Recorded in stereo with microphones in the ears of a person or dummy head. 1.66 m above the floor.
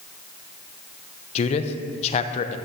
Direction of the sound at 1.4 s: 40° left (ahead or behind).